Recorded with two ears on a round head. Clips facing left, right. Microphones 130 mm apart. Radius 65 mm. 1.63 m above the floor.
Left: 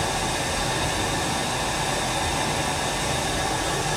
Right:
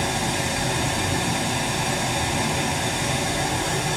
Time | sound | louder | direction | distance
0.0 | running water | right 1 dB | 70° right (ahead or behind) | 3 m